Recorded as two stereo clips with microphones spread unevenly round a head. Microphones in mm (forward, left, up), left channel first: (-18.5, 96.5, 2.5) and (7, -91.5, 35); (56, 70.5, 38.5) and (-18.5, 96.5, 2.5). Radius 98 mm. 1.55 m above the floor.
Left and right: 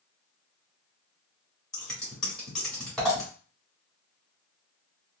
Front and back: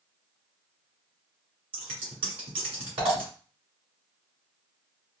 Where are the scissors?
165° right, 1.6 m.